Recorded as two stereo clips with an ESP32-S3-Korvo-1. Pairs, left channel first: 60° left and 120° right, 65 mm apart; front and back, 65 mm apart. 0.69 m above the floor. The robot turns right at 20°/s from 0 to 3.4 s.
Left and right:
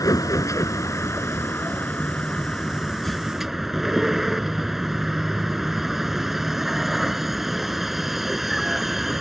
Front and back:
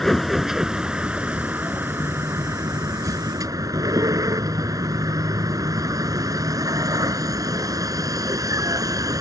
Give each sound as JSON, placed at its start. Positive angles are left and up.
{"t": 0.0, "sound": "a vehicle", "azimuth_deg": 85}